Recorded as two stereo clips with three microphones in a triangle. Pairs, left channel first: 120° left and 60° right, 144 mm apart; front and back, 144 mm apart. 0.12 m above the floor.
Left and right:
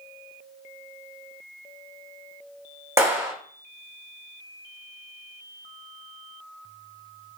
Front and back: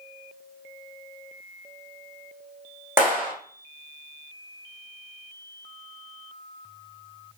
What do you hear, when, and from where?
3.0 s a clap: 115° right, 1.7 m